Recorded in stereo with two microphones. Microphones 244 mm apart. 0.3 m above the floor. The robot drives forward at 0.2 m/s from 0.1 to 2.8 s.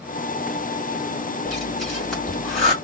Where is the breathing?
Centre (ahead or behind), 2 m.